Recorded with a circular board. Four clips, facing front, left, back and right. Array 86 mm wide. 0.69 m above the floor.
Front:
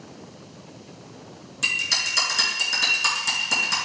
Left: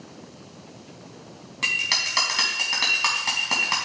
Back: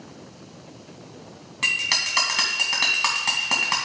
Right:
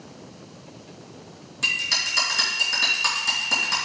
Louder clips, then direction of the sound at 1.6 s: Left 1 dB, back 2 dB; 145° left.